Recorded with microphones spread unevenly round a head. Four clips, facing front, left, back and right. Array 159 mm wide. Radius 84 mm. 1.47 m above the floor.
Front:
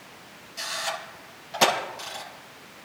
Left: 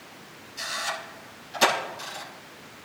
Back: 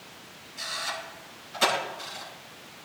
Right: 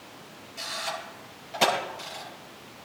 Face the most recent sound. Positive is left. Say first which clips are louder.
# left 2 dB, front 3 dB
turn(degrees=-30)